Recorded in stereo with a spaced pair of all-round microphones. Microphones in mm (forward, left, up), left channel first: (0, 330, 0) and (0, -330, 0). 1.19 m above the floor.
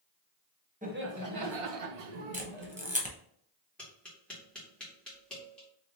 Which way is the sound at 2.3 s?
10° right (ahead or behind).